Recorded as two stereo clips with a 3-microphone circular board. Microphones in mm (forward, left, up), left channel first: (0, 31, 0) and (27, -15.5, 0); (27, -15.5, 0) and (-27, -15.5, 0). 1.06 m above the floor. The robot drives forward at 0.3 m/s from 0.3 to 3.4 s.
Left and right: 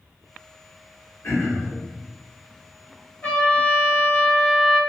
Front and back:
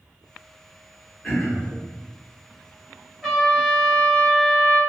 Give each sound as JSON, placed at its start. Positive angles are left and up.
{"t": 1.2, "sound": "throat clearing", "azimuth_deg": 70, "distance_m": 1.5}
{"t": 3.2, "sound": "a trumpet", "azimuth_deg": 80, "distance_m": 0.9}